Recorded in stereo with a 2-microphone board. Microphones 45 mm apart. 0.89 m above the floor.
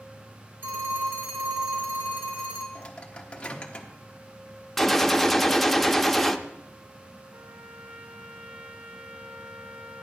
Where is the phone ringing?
45° right (ahead or behind), 2.5 m.